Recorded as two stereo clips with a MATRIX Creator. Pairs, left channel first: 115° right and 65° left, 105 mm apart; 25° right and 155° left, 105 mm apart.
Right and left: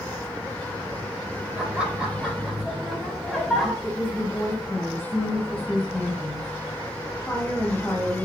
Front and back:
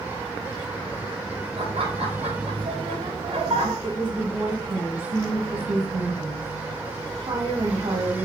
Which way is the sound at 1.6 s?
145° left.